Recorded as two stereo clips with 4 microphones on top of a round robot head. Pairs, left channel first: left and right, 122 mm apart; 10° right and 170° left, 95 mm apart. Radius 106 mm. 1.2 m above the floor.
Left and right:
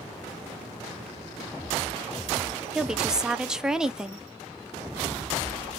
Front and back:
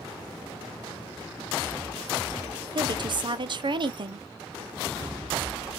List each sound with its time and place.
2.8 s a woman speaking: 175° right, 0.8 m